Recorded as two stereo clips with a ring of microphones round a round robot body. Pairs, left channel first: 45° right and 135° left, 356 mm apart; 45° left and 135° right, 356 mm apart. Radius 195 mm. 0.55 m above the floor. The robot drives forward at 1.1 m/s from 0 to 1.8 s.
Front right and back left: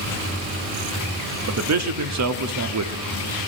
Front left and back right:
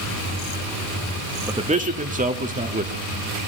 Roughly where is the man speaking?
Behind left.